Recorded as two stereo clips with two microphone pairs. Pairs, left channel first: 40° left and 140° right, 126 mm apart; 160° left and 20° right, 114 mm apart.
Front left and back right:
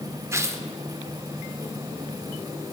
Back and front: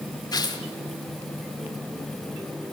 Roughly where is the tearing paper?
Behind.